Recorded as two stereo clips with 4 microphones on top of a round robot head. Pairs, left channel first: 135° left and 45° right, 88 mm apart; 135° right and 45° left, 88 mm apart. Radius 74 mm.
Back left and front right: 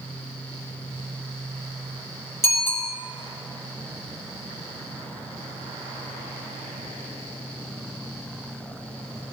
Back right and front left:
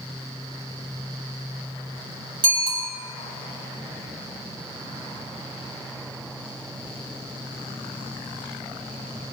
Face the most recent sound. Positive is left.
turn(degrees=75)